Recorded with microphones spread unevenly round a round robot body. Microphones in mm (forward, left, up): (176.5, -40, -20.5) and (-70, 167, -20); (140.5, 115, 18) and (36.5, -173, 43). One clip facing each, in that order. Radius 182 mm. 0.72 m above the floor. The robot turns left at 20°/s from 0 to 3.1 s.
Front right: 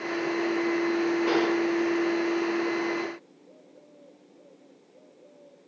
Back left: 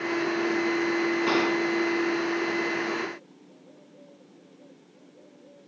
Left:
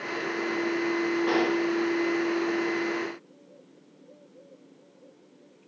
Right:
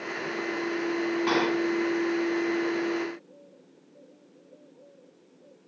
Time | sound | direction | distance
1.3 | a gunshot | 165° right | 1.1 m